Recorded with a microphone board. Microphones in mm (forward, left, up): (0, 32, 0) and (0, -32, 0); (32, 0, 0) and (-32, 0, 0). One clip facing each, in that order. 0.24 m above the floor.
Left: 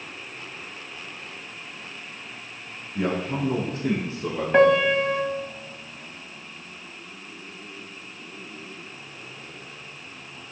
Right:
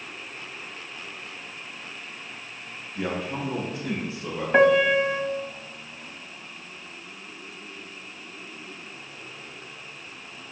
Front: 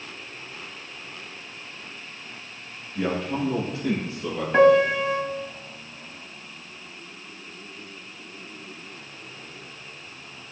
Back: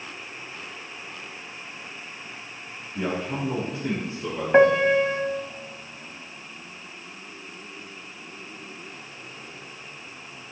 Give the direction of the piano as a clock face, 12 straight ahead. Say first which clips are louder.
Even, even; 6 o'clock.